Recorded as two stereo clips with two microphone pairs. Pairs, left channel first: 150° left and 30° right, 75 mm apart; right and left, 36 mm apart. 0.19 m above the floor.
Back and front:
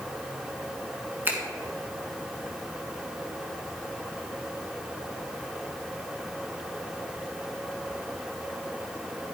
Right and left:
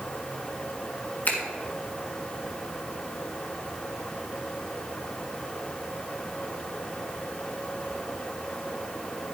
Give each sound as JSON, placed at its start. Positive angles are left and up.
{"t": 1.2, "sound": "a finger snap", "azimuth_deg": -85, "distance_m": 2.0}